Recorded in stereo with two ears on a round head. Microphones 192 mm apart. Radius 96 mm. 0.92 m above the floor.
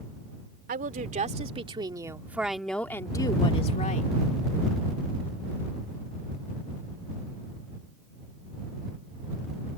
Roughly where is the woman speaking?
Right.